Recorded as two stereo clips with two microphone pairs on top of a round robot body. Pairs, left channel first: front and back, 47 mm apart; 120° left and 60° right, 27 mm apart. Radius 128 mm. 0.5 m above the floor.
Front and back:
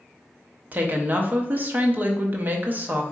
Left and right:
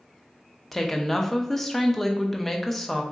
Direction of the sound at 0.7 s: 150° right.